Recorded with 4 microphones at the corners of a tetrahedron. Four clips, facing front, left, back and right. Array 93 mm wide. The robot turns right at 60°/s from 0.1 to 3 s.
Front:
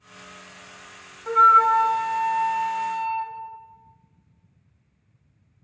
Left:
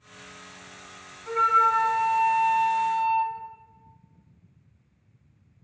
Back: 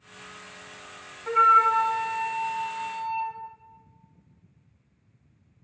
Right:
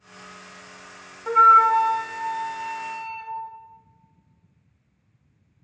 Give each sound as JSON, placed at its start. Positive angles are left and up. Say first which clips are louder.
{"t": 1.3, "sound": "a flute", "louder": "right 7 dB, front 3 dB", "azimuth_deg": -80, "distance_m": 1.4}